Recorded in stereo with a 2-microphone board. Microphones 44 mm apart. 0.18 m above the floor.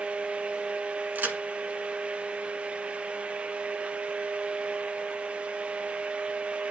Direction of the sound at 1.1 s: 45° right (ahead or behind).